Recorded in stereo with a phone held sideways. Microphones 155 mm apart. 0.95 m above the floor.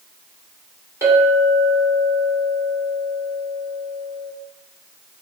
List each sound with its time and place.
1.0 s a clink: 20° right (ahead or behind), 1.2 m